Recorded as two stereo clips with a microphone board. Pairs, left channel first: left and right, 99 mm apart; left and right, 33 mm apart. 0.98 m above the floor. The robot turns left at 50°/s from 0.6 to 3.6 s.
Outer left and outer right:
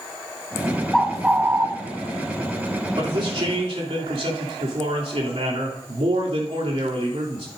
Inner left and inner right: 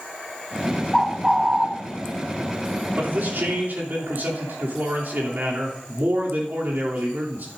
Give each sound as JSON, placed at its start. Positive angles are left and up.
{"t": 0.9, "sound": "a bird", "azimuth_deg": 5, "distance_m": 0.9}
{"t": 3.0, "sound": "a man speaking", "azimuth_deg": -60, "distance_m": 3.0}